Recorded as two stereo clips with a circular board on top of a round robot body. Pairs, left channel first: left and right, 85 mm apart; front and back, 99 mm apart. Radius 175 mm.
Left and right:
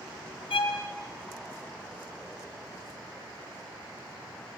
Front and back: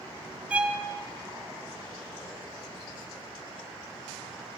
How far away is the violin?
About 2.5 m.